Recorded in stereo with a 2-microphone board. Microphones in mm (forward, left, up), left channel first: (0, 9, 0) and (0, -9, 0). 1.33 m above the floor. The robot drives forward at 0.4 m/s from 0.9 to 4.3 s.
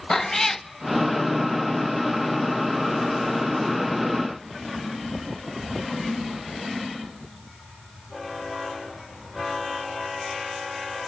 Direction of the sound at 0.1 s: 20° left (ahead or behind).